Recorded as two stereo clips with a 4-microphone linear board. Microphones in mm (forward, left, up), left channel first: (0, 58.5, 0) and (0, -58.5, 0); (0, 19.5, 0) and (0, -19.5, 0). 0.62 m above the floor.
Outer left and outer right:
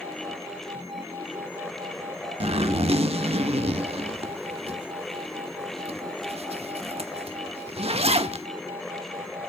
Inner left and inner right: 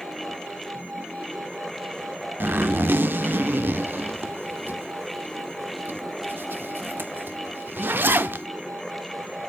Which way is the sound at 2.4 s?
60° right (ahead or behind).